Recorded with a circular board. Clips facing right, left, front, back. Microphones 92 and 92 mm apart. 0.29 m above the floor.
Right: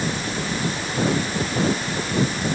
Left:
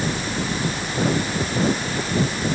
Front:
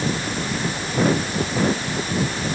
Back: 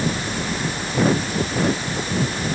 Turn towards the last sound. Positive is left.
No sound to turn to.